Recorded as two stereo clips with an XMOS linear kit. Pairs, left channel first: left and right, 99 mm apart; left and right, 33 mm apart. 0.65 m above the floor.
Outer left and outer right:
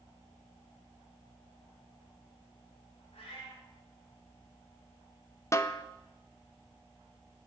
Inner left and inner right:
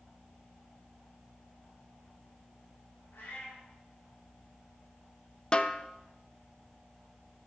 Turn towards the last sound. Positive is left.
turn(degrees=30)  # may be behind; listen again after turning